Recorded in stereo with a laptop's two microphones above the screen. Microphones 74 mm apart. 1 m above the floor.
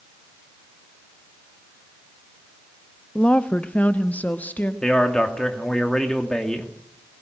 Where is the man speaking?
10° left (ahead or behind), 2.5 m.